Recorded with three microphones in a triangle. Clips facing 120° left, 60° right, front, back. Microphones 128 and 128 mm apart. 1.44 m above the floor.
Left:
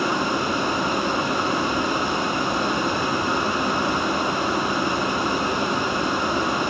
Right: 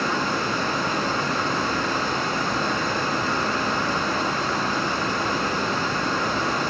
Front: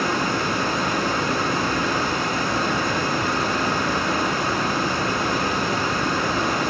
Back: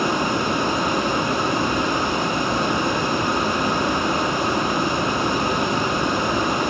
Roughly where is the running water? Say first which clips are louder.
Left 2 dB, back 2 dB; behind.